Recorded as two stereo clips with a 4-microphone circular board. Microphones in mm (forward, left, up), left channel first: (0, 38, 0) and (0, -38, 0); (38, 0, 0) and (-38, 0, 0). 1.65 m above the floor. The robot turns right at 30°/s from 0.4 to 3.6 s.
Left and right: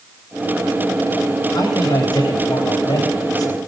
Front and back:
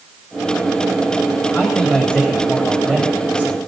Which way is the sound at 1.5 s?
55° left.